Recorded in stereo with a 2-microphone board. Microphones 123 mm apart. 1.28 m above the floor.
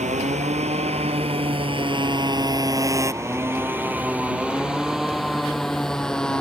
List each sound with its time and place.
0.0 s a motorcycle: 75° right (ahead or behind); by 6.4 s 5° left (ahead or behind)